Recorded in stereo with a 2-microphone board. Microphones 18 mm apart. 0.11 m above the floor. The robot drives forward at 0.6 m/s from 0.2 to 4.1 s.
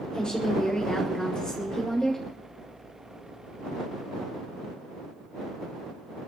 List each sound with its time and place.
0.1 s a woman speaking: 50° left (ahead or behind), 7 m; by 2.2 s 45° left (ahead or behind), 8 m